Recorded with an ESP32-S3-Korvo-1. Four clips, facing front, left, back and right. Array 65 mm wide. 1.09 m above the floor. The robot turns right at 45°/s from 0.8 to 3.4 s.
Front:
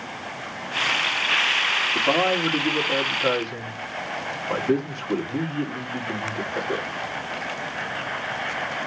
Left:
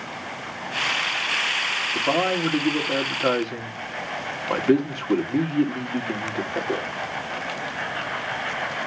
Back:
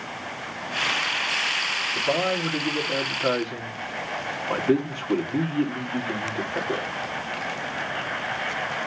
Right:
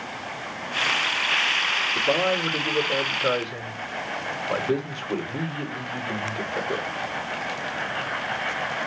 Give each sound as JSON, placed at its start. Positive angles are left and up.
{"t": 1.9, "sound": "a man speaking", "azimuth_deg": 40, "distance_m": 2.0}